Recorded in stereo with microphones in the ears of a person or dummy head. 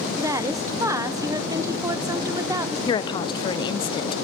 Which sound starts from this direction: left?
A woman speaking, at 2.9 s.